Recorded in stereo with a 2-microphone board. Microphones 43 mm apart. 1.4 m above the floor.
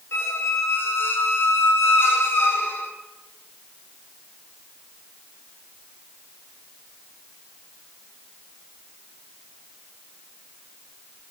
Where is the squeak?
75° left (ahead or behind), 3 m.